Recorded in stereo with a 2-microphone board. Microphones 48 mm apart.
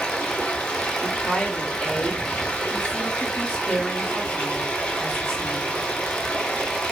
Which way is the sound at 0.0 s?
30° left (ahead or behind).